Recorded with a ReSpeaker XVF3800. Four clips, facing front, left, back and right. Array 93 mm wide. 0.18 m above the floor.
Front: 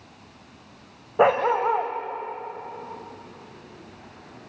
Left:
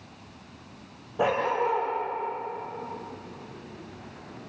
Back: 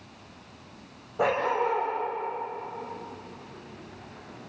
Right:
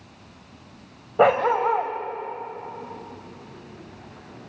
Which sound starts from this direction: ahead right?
A dog barking, at 1.2 s.